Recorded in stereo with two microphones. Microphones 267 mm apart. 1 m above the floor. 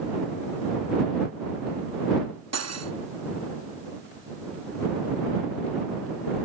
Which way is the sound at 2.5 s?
70° right (ahead or behind).